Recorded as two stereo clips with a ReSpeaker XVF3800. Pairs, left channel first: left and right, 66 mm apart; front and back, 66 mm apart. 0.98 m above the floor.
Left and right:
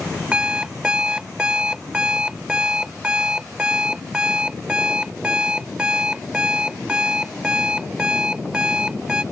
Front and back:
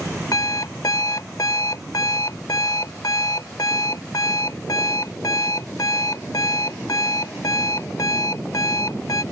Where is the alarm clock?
15° right.